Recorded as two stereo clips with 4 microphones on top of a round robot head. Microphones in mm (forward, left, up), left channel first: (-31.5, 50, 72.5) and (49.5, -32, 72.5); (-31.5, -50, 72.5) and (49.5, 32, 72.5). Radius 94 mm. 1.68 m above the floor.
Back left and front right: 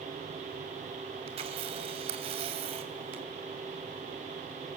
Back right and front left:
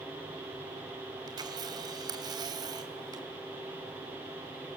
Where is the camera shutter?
10° right, 2.5 m.